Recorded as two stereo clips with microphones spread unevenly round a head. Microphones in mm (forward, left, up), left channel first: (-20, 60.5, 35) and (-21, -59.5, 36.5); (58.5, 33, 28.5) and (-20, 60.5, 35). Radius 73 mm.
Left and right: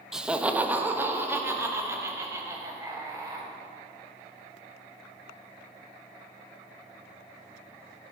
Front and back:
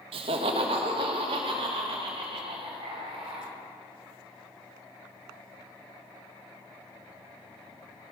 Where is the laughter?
175° right, 1.0 m; by 3.5 s 155° right, 3.5 m.